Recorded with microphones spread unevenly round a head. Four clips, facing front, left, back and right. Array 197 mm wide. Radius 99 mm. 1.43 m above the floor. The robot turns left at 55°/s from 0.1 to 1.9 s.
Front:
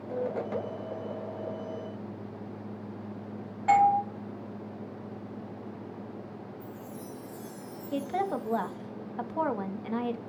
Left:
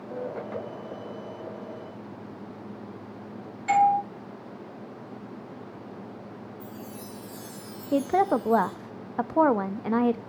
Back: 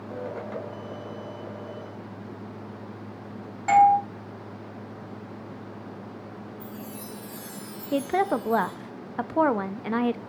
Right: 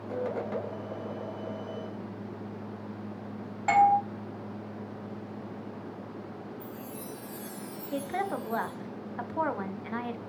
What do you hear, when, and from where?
3.7 s a doorbell: 120° right, 2.5 m
6.6 s a chime: 160° right, 1.4 m
7.9 s a woman speaking: 115° left, 0.5 m